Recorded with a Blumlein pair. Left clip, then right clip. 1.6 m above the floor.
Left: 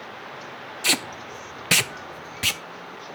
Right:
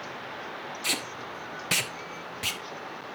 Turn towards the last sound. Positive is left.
turn(degrees=70)